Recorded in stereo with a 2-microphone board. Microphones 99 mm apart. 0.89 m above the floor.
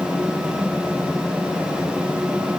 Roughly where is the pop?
No pop in this recording.